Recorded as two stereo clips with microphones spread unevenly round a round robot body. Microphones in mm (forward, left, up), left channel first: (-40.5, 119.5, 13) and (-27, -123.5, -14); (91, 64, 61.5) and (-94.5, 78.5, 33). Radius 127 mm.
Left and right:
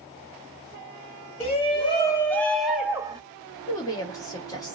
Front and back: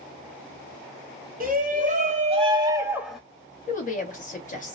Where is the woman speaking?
15° left, 1.1 m.